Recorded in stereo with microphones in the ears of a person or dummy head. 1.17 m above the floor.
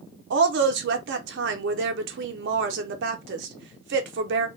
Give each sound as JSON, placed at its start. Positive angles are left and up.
{"t": 0.3, "sound": "a woman speaking", "side_deg": -60, "distance_m": 0.6}